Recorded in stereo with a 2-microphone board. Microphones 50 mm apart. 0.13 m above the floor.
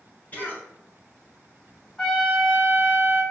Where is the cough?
35° left (ahead or behind), 1.3 m.